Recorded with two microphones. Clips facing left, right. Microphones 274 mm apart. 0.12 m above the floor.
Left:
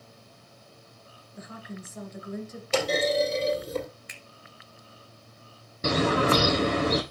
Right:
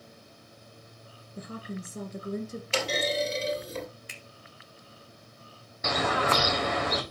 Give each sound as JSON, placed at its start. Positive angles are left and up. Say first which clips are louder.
{"t": 1.4, "sound": "a woman speaking", "louder": "right 3 dB", "side_deg": -40, "distance_m": 1.8}
{"t": 2.7, "sound": "a clunk", "louder": "left 5 dB", "side_deg": 50, "distance_m": 2.5}
{"t": 4.1, "sound": "a finger snap", "louder": "right 1 dB", "side_deg": -40, "distance_m": 1.1}
{"t": 5.8, "sound": "a bird", "louder": "left 6 dB", "side_deg": 40, "distance_m": 1.2}